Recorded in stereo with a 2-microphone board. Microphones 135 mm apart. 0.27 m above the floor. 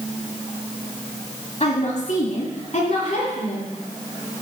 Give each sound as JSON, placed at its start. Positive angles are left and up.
{"t": 1.6, "sound": "a woman speaking", "side_deg": 45, "distance_m": 2.0}